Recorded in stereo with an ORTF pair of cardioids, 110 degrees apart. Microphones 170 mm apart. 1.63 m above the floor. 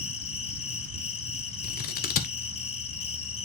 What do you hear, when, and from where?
0.0 s an insect: 35° left, 0.9 m
1.6 s scissors: 60° left, 1.0 m